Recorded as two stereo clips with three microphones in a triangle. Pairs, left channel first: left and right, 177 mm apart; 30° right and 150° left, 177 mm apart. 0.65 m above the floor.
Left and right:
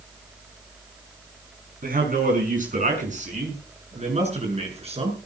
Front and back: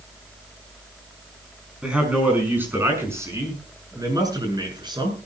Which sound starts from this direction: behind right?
A man speaking, at 1.8 s.